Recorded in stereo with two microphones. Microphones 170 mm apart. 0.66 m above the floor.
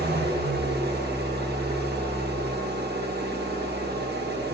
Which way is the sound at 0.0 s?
70° right (ahead or behind).